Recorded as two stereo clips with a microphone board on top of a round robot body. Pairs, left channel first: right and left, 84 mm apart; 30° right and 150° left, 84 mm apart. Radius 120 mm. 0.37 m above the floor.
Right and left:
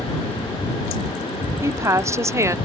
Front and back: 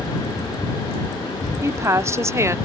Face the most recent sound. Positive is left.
turn(degrees=115)